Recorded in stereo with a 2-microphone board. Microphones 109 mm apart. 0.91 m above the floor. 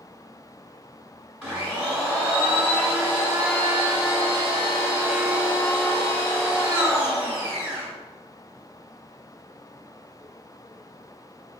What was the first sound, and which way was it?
A blender, 10° right (ahead or behind).